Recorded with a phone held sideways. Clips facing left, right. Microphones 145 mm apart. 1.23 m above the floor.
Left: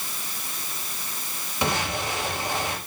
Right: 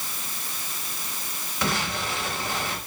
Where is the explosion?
20° left (ahead or behind), 4.5 m.